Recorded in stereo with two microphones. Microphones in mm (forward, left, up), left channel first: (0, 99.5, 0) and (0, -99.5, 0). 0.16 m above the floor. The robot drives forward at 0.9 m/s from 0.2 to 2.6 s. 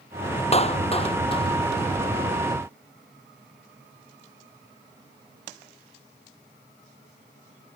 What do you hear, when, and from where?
0.5 s a clap: 30° left (ahead or behind)